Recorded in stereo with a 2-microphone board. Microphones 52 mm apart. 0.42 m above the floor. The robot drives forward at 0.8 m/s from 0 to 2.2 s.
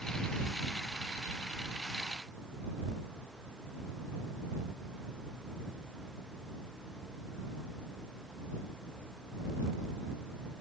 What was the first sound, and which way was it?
Only background noise.